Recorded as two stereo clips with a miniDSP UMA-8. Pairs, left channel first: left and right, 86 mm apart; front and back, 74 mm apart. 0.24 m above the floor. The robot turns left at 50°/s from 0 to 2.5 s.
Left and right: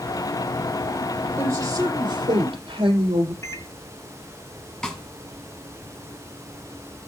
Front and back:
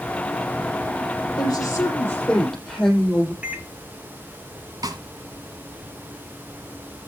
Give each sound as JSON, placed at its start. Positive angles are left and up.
{"t": 1.4, "sound": "a woman speaking", "azimuth_deg": -20, "distance_m": 7.0}
{"t": 3.4, "sound": "a microwave", "azimuth_deg": 115, "distance_m": 1.6}
{"t": 4.8, "sound": "a snare drum", "azimuth_deg": 170, "distance_m": 2.0}